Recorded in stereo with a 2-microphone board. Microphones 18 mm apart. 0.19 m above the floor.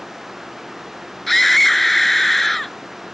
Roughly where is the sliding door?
I don't hear a sliding door.